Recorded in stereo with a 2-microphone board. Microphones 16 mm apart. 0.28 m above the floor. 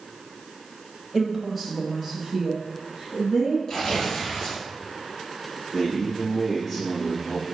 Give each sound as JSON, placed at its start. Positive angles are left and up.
{"t": 1.1, "sound": "a woman speaking", "side_deg": 5, "distance_m": 1.1}
{"t": 3.7, "sound": "tearing paper", "side_deg": 35, "distance_m": 3.5}
{"t": 5.7, "sound": "a man speaking", "side_deg": 5, "distance_m": 3.0}